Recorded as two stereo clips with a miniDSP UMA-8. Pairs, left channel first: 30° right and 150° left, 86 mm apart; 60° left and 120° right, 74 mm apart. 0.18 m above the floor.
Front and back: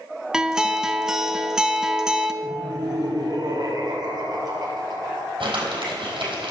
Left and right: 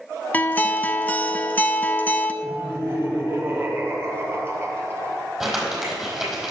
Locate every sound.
0.3 s a guitar: 80° left, 0.6 m
2.4 s laughter: 175° right, 3.5 m
5.4 s crumpling: 160° left, 4.5 m